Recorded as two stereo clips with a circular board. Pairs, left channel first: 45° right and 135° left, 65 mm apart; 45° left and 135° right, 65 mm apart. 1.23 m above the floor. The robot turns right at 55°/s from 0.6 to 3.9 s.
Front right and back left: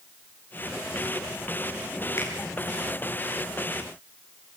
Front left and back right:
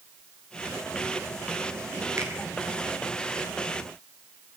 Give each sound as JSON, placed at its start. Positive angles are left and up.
{"t": 2.2, "sound": "a finger snap", "azimuth_deg": -90, "distance_m": 6.5}